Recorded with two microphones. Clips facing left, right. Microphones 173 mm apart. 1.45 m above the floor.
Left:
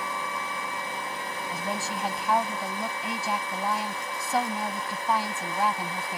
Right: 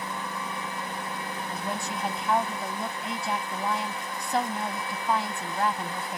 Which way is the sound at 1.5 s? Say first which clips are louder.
Left 1 dB; 5° left (ahead or behind).